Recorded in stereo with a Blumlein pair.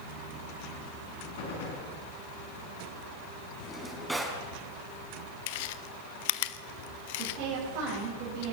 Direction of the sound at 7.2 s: 45° right.